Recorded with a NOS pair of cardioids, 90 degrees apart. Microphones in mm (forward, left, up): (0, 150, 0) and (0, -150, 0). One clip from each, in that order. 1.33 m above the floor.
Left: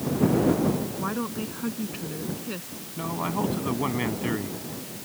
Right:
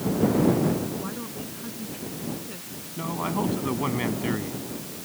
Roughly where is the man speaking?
Ahead.